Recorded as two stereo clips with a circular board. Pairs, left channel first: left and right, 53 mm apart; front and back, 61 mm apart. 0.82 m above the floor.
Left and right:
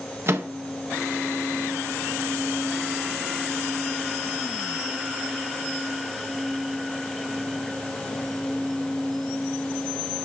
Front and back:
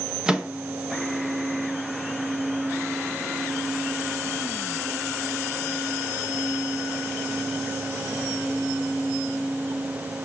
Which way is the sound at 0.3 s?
105° right.